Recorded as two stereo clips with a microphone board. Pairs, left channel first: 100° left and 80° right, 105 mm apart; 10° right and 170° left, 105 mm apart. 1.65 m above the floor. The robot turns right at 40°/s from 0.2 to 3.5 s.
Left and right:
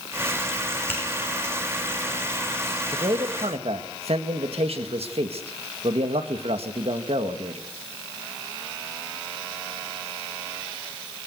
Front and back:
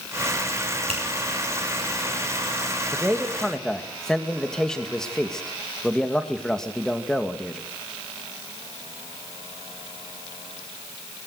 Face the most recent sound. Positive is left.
turn(degrees=-95)